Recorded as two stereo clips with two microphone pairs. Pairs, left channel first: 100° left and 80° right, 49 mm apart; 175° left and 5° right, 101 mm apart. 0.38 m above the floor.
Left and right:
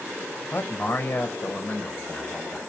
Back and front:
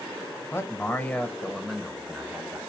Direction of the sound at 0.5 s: 110° left.